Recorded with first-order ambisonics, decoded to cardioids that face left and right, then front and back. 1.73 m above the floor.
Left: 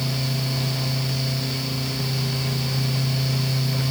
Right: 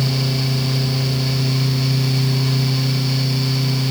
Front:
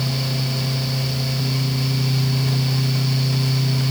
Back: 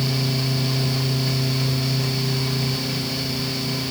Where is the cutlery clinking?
No cutlery clinking in this recording.